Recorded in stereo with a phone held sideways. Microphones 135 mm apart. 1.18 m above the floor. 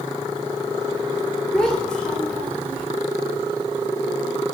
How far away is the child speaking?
About 3.5 m.